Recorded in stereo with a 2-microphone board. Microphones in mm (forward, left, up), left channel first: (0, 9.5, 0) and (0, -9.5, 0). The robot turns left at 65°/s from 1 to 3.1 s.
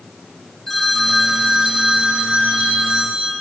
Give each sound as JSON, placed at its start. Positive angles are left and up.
{"t": 0.7, "sound": "a phone ringing", "azimuth_deg": 15, "distance_m": 4.5}